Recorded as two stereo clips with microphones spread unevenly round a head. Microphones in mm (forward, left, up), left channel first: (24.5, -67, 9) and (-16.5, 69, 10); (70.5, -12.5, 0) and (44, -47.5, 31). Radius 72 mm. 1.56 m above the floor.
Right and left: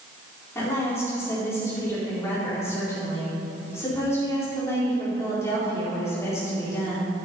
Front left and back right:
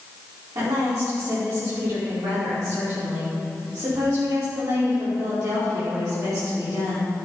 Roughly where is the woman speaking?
Behind right.